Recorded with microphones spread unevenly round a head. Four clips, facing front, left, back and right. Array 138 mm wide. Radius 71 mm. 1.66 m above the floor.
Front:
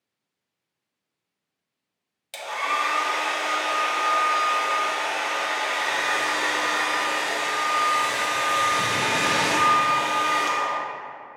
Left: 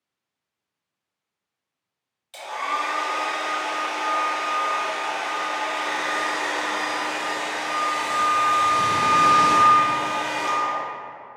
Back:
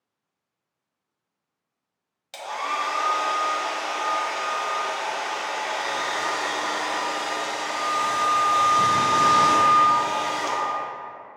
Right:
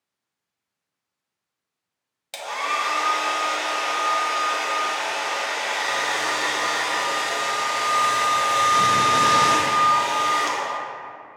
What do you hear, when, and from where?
2.3 s a hair dryer: 80° right, 0.7 m